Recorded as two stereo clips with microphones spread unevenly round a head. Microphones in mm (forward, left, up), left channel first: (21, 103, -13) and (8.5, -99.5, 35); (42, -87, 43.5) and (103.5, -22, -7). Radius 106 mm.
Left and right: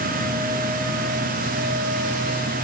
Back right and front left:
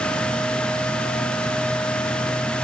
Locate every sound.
Only background noise.